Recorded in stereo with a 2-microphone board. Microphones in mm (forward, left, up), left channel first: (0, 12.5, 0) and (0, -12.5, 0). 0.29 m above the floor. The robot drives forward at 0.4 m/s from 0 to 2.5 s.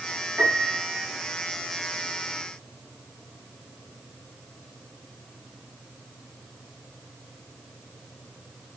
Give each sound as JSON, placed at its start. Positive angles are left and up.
{"t": 0.4, "sound": "a piano", "side_deg": -60, "distance_m": 7.0}